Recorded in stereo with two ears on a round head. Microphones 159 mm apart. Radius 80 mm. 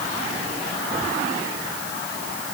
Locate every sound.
Only background noise.